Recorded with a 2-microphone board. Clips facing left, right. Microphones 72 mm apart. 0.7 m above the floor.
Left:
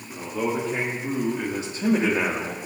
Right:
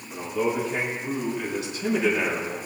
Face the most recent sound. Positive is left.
turn(degrees=50)  # may be behind; listen again after turning